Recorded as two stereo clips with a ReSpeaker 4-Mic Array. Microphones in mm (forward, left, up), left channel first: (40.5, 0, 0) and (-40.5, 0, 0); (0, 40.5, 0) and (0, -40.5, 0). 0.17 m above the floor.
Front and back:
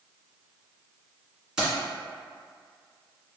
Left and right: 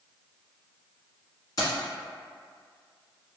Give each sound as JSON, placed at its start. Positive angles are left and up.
{"t": 1.6, "sound": "keys jangling", "azimuth_deg": 105, "distance_m": 1.5}